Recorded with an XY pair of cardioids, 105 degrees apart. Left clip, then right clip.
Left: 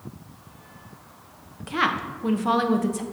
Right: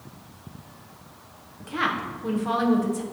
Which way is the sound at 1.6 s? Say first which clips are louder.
Left 2 dB; 35° left.